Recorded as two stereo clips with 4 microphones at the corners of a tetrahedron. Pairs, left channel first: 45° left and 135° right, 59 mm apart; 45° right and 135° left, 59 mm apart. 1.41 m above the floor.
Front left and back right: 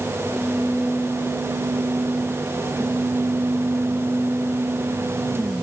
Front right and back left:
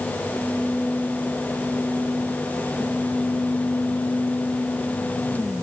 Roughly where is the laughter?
I don't hear laughter.